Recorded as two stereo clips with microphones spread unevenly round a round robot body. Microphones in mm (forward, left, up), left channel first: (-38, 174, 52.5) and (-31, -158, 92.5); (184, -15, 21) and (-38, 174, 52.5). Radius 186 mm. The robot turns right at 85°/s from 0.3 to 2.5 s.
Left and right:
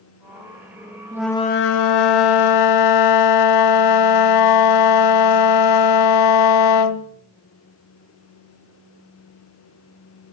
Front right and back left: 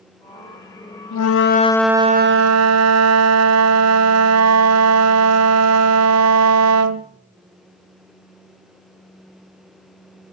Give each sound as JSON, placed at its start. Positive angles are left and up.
{"t": 1.1, "sound": "a flute", "azimuth_deg": -10, "distance_m": 0.7}